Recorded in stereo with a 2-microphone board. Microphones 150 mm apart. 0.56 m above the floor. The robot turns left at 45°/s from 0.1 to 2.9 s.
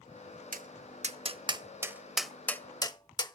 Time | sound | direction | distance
0.5 | tapping | 65° right (ahead or behind) | 0.5 m